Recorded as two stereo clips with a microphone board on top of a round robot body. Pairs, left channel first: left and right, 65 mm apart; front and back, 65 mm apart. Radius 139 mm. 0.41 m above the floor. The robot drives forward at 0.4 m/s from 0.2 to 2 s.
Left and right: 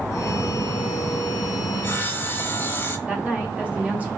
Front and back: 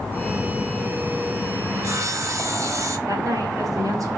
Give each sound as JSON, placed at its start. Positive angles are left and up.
{"t": 1.7, "sound": "sawing", "azimuth_deg": 145, "distance_m": 0.9}
{"t": 3.1, "sound": "a woman speaking", "azimuth_deg": -160, "distance_m": 2.0}